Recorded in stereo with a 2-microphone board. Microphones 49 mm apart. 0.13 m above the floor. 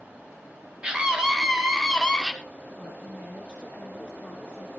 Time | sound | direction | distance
0.8 | a scream | 20° right (ahead or behind) | 2.0 m
2.8 | a woman speaking | 30° right (ahead or behind) | 4 m